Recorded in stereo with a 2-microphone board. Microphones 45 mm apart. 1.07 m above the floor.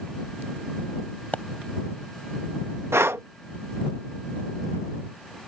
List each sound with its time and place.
1.3 s a pop: 35° left (ahead or behind)
2.9 s breathing: 80° right